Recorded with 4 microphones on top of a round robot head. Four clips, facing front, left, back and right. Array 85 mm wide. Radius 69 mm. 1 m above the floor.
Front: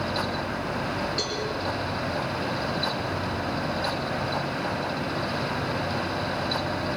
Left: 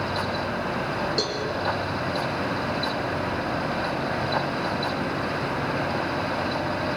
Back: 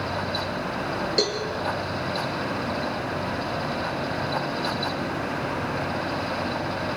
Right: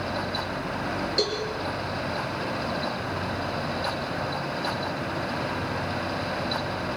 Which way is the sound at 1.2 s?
160° left.